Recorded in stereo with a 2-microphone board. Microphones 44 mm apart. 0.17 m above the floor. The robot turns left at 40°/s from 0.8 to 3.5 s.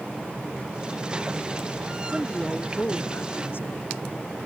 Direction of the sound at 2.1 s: 175° left.